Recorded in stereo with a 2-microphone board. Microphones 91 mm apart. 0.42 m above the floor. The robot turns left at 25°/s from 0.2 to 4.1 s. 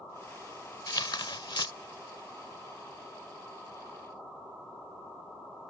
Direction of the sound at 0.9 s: 55° left (ahead or behind).